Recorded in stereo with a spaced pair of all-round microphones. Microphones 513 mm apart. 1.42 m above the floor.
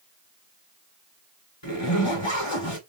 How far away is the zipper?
About 4.5 m.